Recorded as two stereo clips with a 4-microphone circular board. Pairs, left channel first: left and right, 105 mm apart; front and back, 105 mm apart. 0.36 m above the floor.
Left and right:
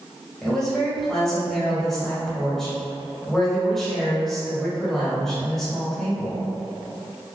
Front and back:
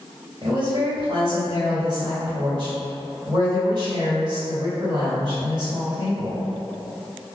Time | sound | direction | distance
0.4 | a woman speaking | 175° left | 1.9 m